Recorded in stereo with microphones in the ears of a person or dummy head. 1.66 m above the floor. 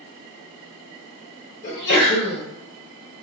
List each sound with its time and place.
1.6 s a sneeze: 55° left (ahead or behind), 1.1 m